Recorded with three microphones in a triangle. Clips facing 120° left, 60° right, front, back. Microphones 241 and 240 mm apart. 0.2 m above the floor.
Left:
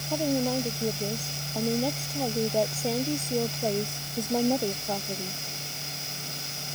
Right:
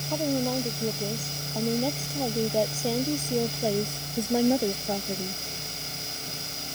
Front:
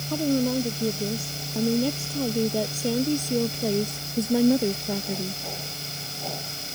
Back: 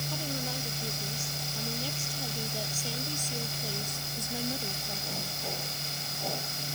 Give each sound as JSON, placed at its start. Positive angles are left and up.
{"t": 0.1, "sound": "a woman speaking", "azimuth_deg": 35}